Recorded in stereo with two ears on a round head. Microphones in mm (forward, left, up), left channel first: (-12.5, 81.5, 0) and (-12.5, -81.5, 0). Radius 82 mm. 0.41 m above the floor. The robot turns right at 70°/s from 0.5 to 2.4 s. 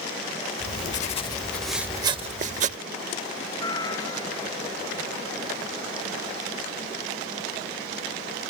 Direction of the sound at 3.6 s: 25° left (ahead or behind).